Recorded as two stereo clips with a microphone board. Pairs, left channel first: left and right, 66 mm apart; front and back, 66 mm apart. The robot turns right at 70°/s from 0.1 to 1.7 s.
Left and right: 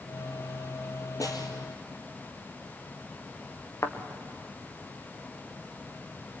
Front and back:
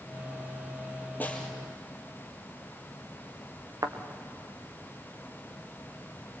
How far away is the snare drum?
About 3 m.